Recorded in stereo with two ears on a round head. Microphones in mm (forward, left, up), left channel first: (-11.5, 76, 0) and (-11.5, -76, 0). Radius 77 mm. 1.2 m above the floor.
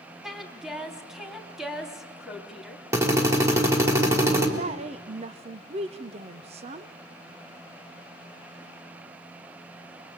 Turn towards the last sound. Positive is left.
turn(degrees=-35)  # may be behind; listen again after turning